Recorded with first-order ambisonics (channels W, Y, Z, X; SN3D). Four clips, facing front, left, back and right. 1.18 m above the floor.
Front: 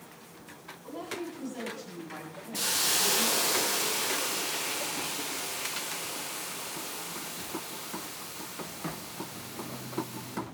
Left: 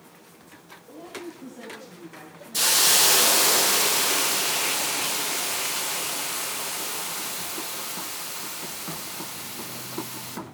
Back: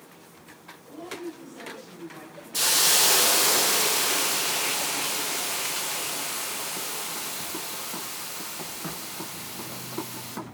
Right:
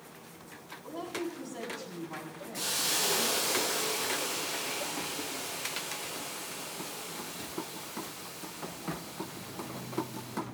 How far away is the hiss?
About 1.2 m.